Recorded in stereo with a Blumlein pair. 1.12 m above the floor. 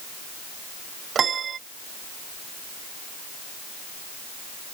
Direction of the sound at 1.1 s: 25° right.